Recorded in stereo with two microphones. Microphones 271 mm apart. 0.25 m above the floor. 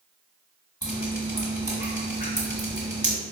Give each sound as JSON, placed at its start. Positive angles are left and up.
{"t": 0.8, "sound": "dripping", "side_deg": -15, "distance_m": 1.9}